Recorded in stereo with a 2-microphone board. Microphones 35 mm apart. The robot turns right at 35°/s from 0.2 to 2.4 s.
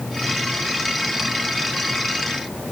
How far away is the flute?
I don't hear a flute.